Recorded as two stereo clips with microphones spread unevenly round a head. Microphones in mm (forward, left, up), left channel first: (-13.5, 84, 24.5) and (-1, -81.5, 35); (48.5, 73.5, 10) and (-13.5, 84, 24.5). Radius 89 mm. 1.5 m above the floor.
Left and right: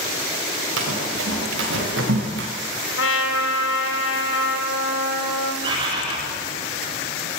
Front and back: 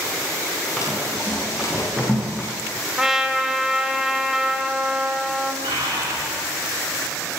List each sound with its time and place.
0.8 s running footsteps: 100° right, 10 m; by 2.5 s 110° right, 7.5 m
3.0 s a trumpet: 95° left, 3 m
5.6 s a bird: 150° right, 6.5 m